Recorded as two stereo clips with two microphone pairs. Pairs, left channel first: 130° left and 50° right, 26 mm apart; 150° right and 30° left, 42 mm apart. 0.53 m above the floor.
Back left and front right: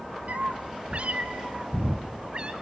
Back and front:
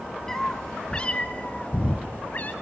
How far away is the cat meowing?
About 1.3 m.